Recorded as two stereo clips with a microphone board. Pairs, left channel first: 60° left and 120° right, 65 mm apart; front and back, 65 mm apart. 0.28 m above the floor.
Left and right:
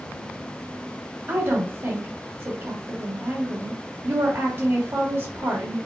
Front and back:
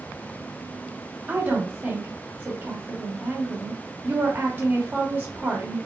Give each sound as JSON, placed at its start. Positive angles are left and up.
{"t": 1.3, "sound": "a woman speaking", "azimuth_deg": -140, "distance_m": 1.8}